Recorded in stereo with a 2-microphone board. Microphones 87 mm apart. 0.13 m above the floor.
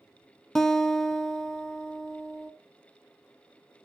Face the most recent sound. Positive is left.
turn(degrees=5)  # may be behind; listen again after turning